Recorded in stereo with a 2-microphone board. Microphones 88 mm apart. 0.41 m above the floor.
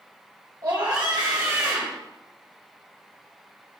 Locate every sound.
0.6 s a scream: 40° right (ahead or behind), 1.5 m